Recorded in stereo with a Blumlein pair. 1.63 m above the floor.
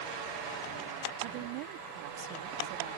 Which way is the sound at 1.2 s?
45° right.